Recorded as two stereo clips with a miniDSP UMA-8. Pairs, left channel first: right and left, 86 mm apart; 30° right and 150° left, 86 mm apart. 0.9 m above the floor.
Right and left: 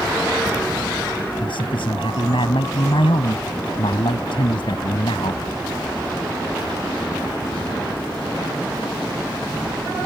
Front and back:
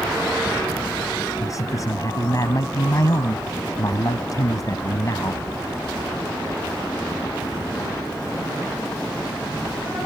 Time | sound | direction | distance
1.4 | a man speaking | 80° right | ?